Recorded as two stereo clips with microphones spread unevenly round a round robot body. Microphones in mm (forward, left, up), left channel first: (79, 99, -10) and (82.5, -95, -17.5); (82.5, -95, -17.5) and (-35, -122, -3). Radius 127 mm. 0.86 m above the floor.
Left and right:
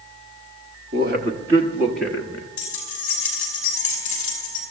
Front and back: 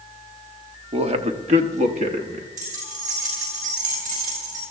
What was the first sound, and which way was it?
A man speaking, 135° right.